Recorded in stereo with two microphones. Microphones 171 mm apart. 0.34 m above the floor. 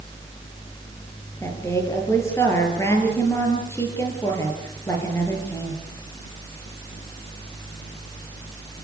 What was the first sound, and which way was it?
A woman speaking, 15° left (ahead or behind).